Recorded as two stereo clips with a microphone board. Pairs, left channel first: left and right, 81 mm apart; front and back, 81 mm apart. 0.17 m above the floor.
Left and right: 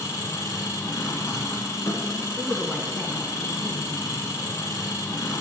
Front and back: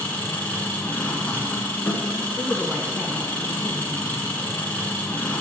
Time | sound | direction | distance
0.0 | an engine running | 65° left | 1.6 m
2.4 | a woman speaking | 175° right | 1.1 m